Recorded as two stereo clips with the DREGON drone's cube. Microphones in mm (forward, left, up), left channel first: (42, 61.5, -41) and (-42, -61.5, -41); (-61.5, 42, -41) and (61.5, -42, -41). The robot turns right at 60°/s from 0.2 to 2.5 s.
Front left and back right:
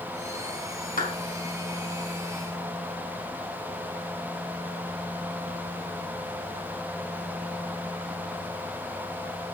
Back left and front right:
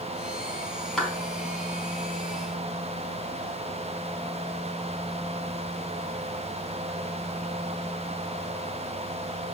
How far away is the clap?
About 4.5 m.